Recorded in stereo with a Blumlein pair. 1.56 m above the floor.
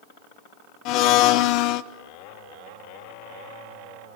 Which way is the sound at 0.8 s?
40° left.